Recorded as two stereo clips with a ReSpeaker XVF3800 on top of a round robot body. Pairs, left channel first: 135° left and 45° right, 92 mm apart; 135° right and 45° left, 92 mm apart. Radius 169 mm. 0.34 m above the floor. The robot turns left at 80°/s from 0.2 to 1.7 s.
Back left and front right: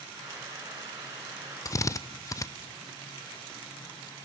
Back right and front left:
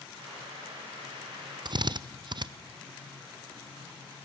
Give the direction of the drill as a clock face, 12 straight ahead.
9 o'clock.